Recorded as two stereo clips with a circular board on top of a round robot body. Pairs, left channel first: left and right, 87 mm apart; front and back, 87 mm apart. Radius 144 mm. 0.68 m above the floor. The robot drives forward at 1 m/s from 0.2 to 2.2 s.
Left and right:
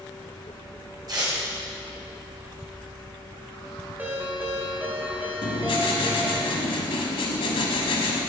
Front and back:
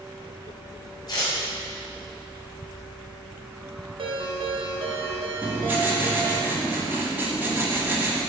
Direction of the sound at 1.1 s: 45° right.